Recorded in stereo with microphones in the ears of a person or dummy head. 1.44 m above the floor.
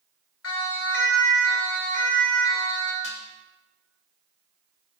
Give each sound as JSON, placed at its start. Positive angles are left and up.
{"t": 0.4, "sound": "a siren", "side_deg": 80, "distance_m": 4.0}
{"t": 3.0, "sound": "dishes clattering", "side_deg": 75, "distance_m": 1.9}